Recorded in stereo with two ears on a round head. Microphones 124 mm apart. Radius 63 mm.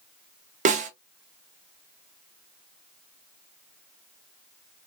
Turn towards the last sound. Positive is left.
turn(degrees=-55)  # may be behind; listen again after turning